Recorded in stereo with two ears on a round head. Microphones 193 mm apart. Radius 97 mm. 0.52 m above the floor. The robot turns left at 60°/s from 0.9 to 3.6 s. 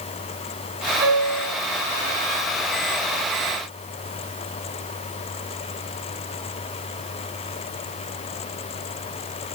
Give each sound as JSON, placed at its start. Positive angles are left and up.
{"t": 1.0, "sound": "a piano", "azimuth_deg": -90, "distance_m": 2.0}